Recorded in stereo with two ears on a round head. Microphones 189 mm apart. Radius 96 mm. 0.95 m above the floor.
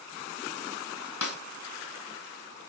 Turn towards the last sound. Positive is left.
turn(degrees=75)  # may be behind; listen again after turning